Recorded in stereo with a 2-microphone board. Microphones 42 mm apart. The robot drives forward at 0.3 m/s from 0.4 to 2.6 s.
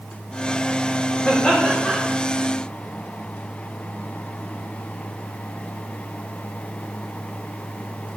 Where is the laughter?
25° left (ahead or behind), 2 m.